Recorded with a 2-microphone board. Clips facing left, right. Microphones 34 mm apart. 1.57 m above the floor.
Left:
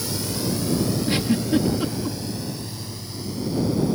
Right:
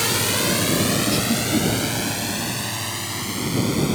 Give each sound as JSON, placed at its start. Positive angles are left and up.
{"t": 0.0, "sound": "a drone", "side_deg": -85}
{"t": 1.1, "sound": "a giggle", "side_deg": 35}